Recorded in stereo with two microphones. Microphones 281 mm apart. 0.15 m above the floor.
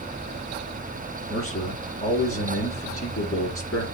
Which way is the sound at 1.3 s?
50° left (ahead or behind).